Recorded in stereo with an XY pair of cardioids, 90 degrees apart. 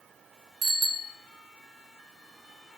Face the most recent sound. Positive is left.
turn(degrees=-65)